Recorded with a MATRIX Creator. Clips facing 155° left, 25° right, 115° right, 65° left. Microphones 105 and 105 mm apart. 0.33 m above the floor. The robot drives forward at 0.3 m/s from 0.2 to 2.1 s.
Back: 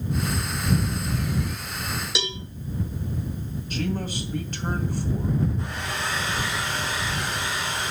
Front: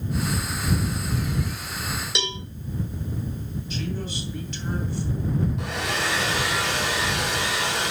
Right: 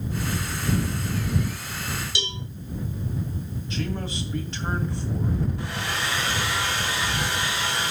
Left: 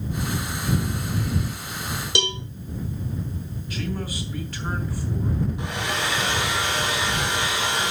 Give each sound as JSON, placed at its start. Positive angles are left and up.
{"t": 2.1, "sound": "a cowbell", "azimuth_deg": 70, "distance_m": 1.3}
{"t": 3.7, "sound": "a man speaking", "azimuth_deg": -175, "distance_m": 2.5}
{"t": 5.6, "sound": "a hair dryer", "azimuth_deg": -5, "distance_m": 3.0}